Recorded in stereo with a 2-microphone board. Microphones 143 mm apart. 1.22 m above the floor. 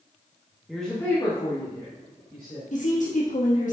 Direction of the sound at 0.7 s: Centre (ahead or behind).